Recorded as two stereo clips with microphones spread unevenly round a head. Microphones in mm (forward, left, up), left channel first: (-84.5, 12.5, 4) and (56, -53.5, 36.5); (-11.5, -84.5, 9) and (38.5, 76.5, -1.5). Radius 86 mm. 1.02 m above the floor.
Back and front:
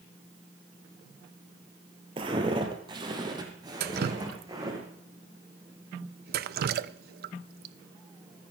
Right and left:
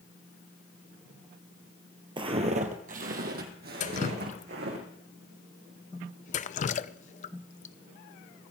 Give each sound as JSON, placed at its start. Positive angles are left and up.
{"t": 2.2, "sound": "footsteps", "azimuth_deg": 15, "distance_m": 1.5}
{"t": 3.8, "sound": "dripping", "azimuth_deg": -55, "distance_m": 0.6}